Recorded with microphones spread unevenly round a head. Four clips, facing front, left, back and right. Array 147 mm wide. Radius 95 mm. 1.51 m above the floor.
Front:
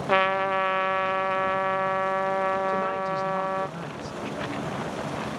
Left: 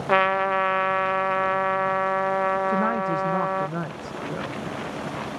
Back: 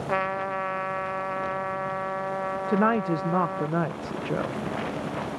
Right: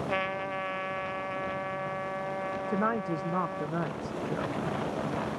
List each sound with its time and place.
0.1 s a trumpet: 60° left
2.7 s a woman speaking: 175° left